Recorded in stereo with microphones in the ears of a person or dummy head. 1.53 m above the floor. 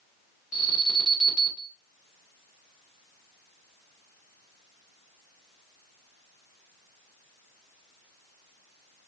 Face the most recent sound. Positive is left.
turn(degrees=50)  # may be behind; listen again after turning